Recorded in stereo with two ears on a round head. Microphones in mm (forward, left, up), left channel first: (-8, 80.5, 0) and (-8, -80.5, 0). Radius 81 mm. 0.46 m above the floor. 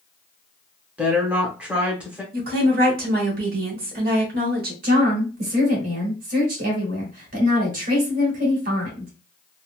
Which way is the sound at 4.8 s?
50° right (ahead or behind).